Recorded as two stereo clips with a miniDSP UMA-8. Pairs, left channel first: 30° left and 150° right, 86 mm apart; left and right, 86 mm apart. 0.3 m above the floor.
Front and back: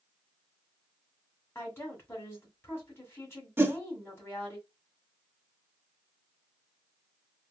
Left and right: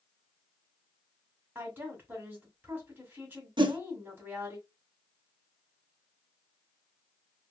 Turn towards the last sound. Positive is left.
turn(degrees=-90)